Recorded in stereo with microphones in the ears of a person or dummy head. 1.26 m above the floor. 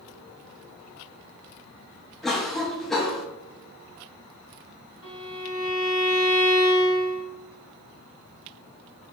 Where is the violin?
55° right (ahead or behind), 1.9 m.